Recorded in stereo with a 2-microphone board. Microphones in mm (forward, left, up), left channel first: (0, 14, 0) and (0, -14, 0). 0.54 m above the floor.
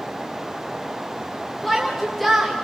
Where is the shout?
10° left (ahead or behind), 3 m.